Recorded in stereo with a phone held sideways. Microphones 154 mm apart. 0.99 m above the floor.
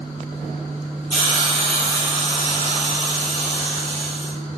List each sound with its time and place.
1.1 s a hiss: 45° right (ahead or behind), 1.7 m